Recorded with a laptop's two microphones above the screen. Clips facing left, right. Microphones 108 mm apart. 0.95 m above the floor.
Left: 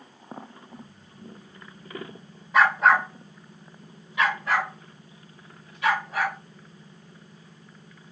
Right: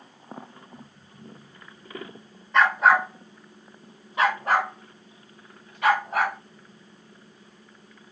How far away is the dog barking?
About 1.0 m.